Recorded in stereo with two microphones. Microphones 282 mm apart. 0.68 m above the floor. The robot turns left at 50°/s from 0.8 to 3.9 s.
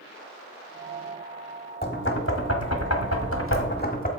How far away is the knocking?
About 1.2 m.